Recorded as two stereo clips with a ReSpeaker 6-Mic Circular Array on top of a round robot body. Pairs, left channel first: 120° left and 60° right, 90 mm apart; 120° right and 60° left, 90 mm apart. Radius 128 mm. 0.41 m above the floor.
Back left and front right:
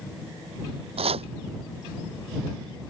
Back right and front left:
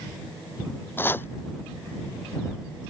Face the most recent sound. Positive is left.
turn(degrees=-50)